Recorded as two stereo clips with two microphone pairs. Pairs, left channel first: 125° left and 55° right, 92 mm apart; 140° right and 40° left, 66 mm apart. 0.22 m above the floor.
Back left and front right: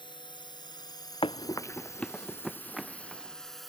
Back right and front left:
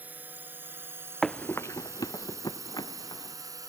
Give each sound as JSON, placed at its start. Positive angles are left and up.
{"t": 0.0, "sound": "a drone", "azimuth_deg": 100}
{"t": 1.2, "sound": "running footsteps", "azimuth_deg": 135}